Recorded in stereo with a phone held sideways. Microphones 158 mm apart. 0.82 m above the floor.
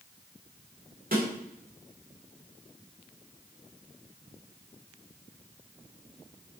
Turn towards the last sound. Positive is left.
turn(degrees=-65)  # may be behind; listen again after turning